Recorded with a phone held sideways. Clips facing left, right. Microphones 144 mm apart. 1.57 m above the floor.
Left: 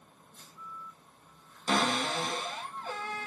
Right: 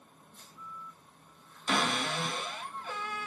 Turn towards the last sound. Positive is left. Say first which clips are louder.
# left 2 dB
turn(degrees=35)  # may be behind; listen again after turning